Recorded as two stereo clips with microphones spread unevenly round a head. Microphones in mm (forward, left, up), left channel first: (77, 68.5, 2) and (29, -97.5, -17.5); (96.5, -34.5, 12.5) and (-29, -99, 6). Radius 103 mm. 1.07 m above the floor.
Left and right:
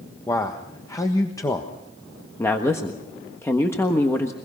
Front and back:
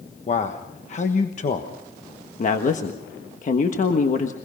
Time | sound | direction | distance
0.3 | a man speaking | straight ahead | 1.4 m
2.4 | a woman speaking | 5° right | 1.4 m